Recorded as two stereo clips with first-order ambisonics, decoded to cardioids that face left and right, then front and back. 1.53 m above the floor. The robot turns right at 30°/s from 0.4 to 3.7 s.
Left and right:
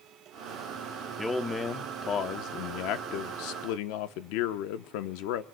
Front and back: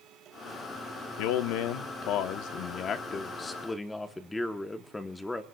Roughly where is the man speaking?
Ahead.